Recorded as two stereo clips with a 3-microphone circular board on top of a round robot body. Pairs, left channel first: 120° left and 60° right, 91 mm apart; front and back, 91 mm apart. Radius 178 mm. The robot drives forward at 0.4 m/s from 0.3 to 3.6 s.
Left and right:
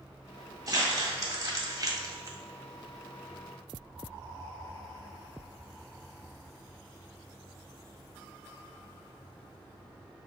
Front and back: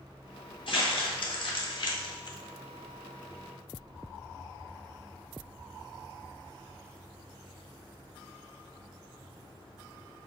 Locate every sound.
0.7 s crumpling: 15° right, 2 m; by 2.4 s 20° right, 1.5 m